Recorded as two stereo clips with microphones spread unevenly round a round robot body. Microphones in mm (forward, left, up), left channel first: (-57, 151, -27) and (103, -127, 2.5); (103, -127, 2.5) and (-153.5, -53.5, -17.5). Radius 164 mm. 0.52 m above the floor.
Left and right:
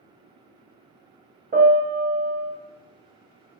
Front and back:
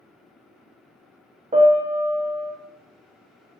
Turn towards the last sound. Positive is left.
turn(degrees=-125)